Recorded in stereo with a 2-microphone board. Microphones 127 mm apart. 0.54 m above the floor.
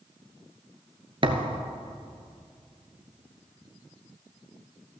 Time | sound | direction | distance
1.2 | a thud | 45° right (ahead or behind) | 0.8 m